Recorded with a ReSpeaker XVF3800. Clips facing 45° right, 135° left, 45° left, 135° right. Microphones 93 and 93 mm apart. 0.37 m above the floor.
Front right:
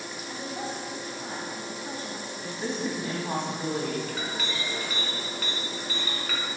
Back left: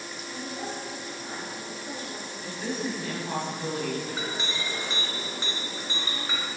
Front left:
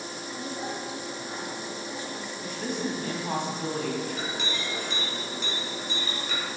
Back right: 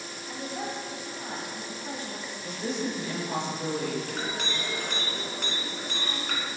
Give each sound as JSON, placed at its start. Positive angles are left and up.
{"t": 0.3, "sound": "a woman speaking", "azimuth_deg": -95, "distance_m": 2.5}
{"t": 2.4, "sound": "a woman speaking", "azimuth_deg": 20, "distance_m": 2.5}
{"t": 4.1, "sound": "a clink", "azimuth_deg": -165, "distance_m": 2.0}